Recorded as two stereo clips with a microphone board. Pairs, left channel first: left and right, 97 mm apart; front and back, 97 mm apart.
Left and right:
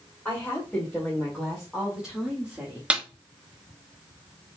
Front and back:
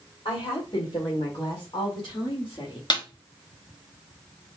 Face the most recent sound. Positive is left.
turn(degrees=-15)